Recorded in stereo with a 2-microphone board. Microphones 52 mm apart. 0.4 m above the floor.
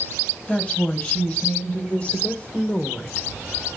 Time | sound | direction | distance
0.5 | a woman speaking | 25° left (ahead or behind) | 2.5 m